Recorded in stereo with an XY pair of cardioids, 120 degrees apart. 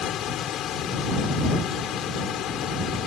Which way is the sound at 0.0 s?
65° left.